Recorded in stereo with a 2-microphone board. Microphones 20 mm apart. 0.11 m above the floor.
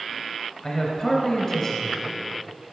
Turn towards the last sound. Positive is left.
turn(degrees=25)  # may be behind; listen again after turning